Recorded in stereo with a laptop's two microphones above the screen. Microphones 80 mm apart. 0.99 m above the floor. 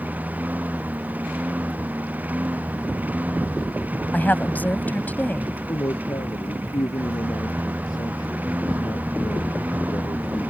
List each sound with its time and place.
0.0 s a lawn mower: 20° right (ahead or behind)
4.1 s a woman speaking: 20° left (ahead or behind)
5.7 s a man speaking: 60° left (ahead or behind)